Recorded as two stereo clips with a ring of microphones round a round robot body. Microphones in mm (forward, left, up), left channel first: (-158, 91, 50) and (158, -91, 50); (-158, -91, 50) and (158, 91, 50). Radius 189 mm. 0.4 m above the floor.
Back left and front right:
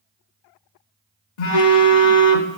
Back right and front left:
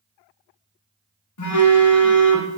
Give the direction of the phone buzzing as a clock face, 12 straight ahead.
6 o'clock.